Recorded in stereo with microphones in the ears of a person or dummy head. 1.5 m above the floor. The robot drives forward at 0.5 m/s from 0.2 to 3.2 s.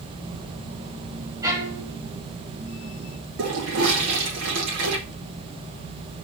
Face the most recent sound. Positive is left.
turn(degrees=-70)  # may be behind; listen again after turning